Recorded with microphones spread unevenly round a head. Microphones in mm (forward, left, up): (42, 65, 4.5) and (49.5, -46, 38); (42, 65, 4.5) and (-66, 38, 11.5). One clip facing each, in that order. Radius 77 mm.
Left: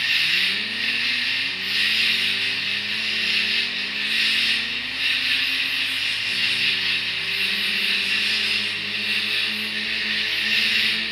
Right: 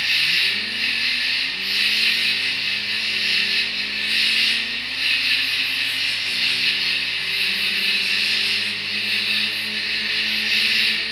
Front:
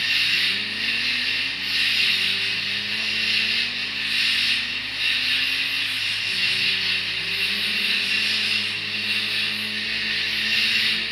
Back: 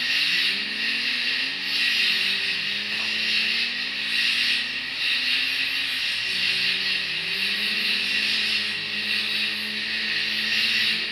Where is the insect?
45° right, 0.8 m.